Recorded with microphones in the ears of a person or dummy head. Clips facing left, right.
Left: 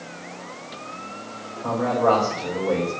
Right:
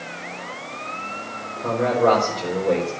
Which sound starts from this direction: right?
A man speaking, at 1.6 s.